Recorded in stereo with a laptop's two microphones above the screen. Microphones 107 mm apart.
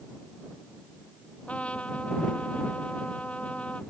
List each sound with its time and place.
1.5 s a trumpet: 10° left (ahead or behind)